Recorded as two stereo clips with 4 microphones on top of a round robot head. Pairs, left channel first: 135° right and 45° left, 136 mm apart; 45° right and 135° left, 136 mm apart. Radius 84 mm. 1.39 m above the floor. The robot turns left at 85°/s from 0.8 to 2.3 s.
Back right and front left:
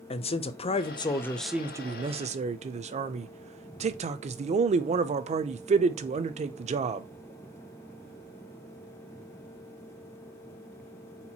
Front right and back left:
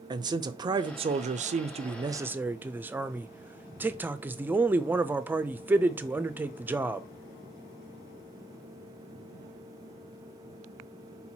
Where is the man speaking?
170° right, 0.5 m; by 7.1 s 60° left, 0.5 m.